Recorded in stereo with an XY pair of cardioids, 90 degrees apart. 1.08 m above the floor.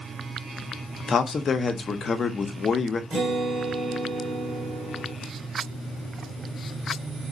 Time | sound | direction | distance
1.1 | a man speaking | 45° left | 0.9 m
3.1 | a guitar | 60° right | 2.5 m